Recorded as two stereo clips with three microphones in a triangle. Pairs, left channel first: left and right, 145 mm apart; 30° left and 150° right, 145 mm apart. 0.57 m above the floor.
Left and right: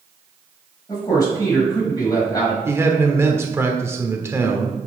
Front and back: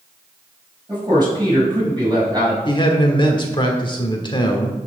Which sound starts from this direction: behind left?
A man speaking, at 0.9 s.